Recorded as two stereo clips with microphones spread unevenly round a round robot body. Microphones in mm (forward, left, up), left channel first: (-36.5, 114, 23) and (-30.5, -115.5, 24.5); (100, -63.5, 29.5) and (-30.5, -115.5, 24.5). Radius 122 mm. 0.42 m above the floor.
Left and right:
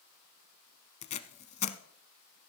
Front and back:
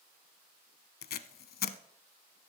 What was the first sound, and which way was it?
Tape being pulled, 25° left.